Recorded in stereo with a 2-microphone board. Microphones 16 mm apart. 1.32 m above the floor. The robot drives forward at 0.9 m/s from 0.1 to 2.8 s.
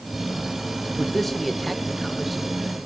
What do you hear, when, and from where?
1.0 s a man speaking: 20° left (ahead or behind), 1.0 m; by 2.8 s 10° left (ahead or behind), 2.5 m